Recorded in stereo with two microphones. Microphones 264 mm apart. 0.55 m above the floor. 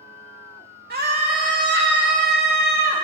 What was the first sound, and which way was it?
A scream, 40° right (ahead or behind).